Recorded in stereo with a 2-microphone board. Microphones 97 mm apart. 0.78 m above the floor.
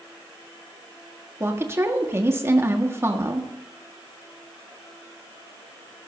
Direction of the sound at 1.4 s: 25° right (ahead or behind).